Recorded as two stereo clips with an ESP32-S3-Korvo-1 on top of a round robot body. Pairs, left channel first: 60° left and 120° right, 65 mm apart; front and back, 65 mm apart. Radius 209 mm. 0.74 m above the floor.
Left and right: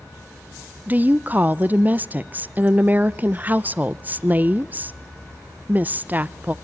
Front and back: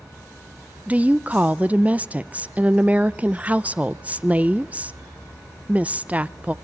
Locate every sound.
0.9 s a woman speaking: 140° right, 0.6 m